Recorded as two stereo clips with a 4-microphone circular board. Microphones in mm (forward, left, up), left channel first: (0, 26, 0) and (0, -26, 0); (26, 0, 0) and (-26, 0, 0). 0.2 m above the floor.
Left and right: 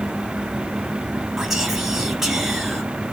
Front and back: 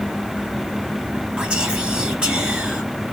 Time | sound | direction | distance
1.4 | whispering | 160° right | 1.0 m